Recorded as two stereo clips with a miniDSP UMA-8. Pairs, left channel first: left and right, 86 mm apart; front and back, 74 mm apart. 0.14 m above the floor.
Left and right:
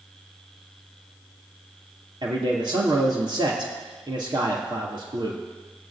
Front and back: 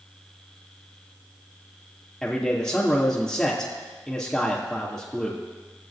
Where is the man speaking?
80° right, 3 m.